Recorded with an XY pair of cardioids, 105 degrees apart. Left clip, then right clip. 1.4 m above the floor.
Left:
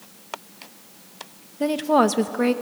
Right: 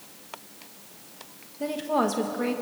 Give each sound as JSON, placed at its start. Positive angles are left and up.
{"t": 1.6, "sound": "a woman speaking", "azimuth_deg": 50, "distance_m": 1.1}